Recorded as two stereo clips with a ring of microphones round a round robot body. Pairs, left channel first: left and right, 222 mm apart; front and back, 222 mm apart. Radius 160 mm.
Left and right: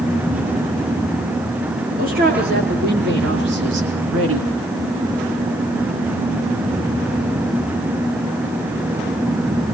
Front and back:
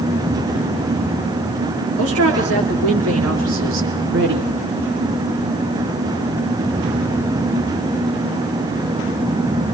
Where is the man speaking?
150° right, 5.5 m; by 4.5 s 125° right, 3.5 m.